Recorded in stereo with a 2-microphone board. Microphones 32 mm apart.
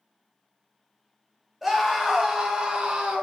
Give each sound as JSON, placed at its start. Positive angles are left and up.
{"t": 1.6, "sound": "a scream", "side_deg": 0, "distance_m": 1.0}